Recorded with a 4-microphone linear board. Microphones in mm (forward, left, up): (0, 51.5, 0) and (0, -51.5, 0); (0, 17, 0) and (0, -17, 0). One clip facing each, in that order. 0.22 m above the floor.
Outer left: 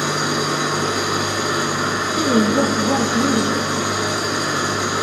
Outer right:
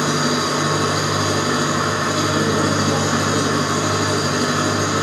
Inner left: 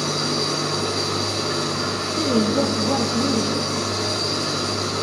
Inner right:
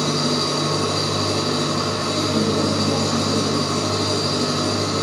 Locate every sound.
0.0 s an engine running: 70° right (ahead or behind), 4.5 m
2.2 s a woman speaking: 50° left (ahead or behind), 2 m